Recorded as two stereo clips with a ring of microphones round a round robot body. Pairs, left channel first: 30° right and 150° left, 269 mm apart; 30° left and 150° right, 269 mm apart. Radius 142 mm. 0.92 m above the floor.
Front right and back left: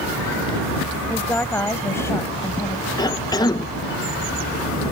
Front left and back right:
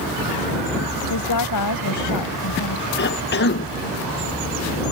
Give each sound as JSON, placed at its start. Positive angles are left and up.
{"t": 1.1, "sound": "a woman speaking", "azimuth_deg": 55}
{"t": 3.0, "sound": "a cough", "azimuth_deg": 40}